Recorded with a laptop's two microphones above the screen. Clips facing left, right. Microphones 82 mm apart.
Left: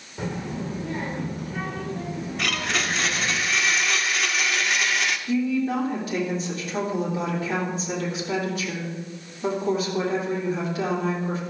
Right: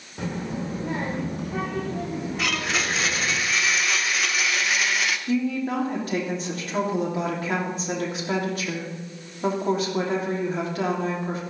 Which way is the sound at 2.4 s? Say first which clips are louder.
Left 1 dB; centre (ahead or behind).